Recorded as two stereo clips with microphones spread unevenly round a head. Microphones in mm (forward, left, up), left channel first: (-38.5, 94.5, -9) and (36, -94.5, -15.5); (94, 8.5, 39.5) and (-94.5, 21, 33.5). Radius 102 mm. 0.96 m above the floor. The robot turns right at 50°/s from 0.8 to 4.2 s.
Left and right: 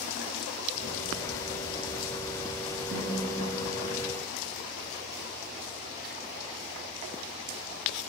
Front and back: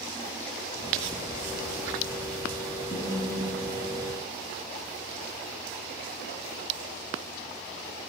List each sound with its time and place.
2.9 s a snare drum: 60° right, 4.5 m; by 3.4 s 40° right, 4.5 m